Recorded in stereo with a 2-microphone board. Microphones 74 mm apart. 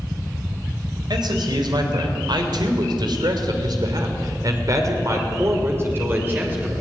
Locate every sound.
1.1 s a man speaking: 75° right (ahead or behind), 3.5 m; by 6.7 s 20° right (ahead or behind), 3 m